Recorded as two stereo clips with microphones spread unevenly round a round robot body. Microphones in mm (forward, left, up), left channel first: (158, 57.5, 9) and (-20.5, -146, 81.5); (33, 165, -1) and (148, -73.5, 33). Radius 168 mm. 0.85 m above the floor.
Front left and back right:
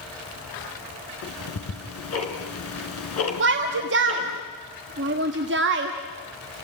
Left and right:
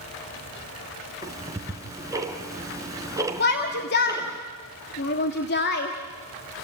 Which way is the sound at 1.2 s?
10° left.